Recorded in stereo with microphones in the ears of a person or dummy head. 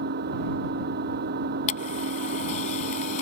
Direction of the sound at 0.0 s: 55° right (ahead or behind).